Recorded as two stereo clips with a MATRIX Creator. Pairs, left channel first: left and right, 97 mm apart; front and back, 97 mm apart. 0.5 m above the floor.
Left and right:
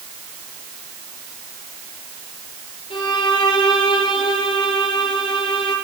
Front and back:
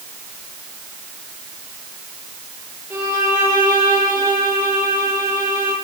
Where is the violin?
115° left, 9.5 m.